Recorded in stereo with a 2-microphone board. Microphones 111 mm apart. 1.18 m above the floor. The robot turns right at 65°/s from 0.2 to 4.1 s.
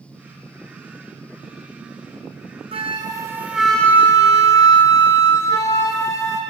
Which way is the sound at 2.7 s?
60° right.